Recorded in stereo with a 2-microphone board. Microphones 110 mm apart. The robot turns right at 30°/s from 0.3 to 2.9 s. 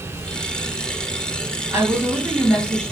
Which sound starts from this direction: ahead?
A woman speaking, at 1.7 s.